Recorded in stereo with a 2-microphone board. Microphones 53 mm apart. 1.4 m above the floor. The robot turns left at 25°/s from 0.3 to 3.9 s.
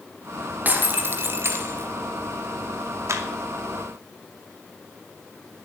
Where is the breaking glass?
35° right, 2.5 m; by 1.9 s 70° right, 2.5 m.